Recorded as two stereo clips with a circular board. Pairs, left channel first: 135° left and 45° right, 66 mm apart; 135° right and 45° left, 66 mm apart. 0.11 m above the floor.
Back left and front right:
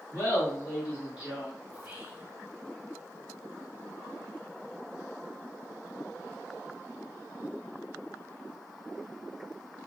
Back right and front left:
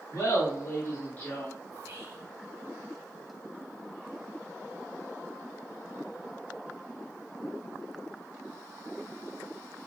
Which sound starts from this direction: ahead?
Whispering, at 1.7 s.